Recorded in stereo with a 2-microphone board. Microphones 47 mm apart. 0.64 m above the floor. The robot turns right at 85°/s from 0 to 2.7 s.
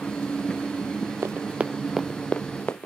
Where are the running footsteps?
55° right (ahead or behind); by 2.9 s 40° left (ahead or behind).